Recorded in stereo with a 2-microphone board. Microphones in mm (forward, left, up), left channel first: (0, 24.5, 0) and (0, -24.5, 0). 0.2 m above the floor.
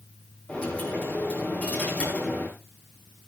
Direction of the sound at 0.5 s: 25° left (ahead or behind).